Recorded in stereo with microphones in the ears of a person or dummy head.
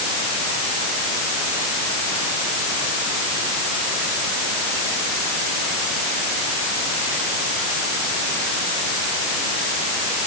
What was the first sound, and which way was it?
Only background noise.